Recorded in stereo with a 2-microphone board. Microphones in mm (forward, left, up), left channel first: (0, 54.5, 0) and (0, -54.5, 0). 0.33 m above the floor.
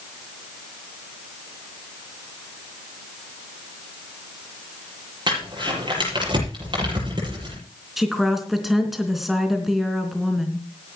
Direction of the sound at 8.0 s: Centre (ahead or behind).